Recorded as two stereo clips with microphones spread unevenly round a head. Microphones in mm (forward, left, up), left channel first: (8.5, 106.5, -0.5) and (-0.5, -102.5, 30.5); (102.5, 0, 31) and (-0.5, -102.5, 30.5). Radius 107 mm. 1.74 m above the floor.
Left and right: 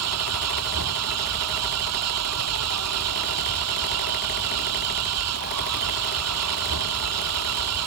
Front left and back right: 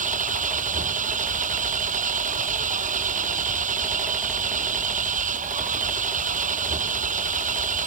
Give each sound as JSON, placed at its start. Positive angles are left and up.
{"t": 0.0, "sound": "an engine running", "azimuth_deg": -105}